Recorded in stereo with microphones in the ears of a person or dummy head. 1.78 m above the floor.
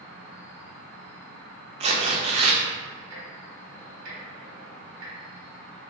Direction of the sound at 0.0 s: 15° left (ahead or behind).